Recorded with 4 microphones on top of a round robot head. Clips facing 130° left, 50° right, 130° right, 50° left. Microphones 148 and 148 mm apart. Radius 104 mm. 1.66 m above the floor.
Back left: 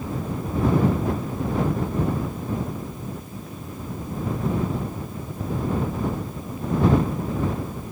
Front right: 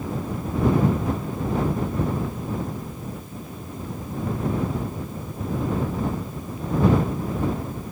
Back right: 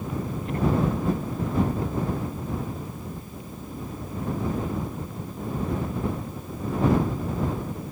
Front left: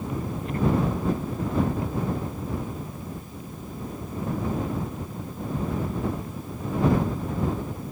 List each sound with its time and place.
Only background noise.